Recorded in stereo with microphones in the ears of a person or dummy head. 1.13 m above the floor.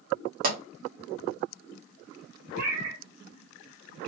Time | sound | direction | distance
0.4 | a pop | 50° right (ahead or behind) | 1.4 m
2.5 | a cat meowing | 70° right (ahead or behind) | 2.5 m